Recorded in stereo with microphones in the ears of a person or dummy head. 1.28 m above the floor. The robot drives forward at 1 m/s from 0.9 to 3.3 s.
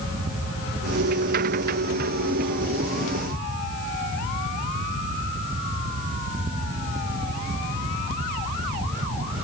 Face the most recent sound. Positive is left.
No sound to turn to.